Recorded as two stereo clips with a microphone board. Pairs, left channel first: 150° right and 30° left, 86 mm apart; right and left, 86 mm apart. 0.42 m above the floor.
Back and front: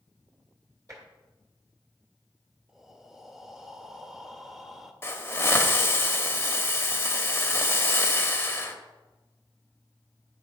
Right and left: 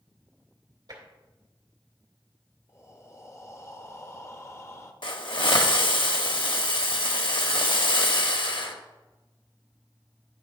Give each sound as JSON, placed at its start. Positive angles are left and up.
{"t": 0.9, "sound": "tapping", "azimuth_deg": 70, "distance_m": 2.0}
{"t": 2.7, "sound": "breathing", "azimuth_deg": -55, "distance_m": 0.7}
{"t": 5.0, "sound": "a hiss", "azimuth_deg": -90, "distance_m": 0.8}